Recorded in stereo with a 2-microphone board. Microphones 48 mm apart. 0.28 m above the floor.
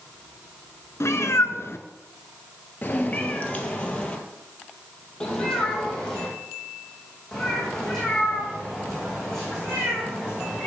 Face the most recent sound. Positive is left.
turn(degrees=5)  # may be behind; listen again after turning